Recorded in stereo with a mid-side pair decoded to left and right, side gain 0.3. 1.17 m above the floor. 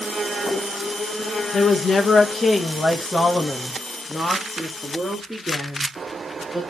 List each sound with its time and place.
1.5 s a woman speaking: 70° left, 1.2 m; by 6.6 s 15° right, 2.5 m